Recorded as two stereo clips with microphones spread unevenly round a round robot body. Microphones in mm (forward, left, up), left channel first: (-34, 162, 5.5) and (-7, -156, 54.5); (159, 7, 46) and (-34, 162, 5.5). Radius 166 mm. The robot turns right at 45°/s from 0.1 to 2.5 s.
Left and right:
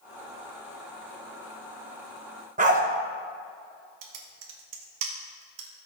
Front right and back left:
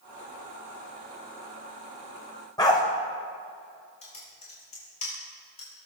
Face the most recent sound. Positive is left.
turn(degrees=-110)